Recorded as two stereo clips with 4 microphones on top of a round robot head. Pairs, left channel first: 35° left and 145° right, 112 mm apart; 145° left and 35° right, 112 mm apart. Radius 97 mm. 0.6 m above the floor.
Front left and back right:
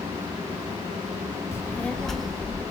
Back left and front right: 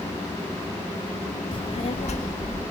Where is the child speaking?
100° left, 1.5 m; by 2.6 s 135° left, 2.5 m.